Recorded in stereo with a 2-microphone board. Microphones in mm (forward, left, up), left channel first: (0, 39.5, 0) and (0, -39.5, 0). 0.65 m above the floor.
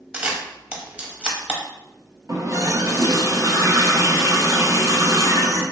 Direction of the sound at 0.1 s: 15° right (ahead or behind).